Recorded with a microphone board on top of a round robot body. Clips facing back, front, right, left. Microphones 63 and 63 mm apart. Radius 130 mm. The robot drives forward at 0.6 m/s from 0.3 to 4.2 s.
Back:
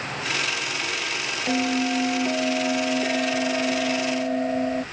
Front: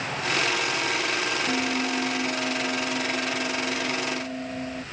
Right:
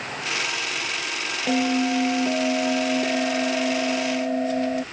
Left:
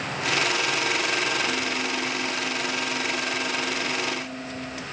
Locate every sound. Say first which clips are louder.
1.5 s a bell: back 3 dB, right 6 dB; 110° right; by 4.8 s 125° right